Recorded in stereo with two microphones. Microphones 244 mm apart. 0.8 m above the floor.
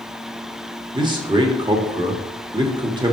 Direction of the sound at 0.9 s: 20° right (ahead or behind).